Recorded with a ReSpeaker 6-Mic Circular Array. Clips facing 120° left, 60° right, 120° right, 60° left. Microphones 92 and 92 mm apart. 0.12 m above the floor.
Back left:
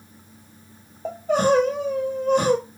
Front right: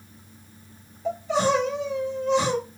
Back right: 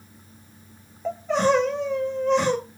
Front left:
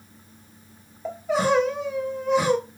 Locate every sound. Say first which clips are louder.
1.1 s crying: back left 3 dB, back right 1 dB; 140° left, 0.8 m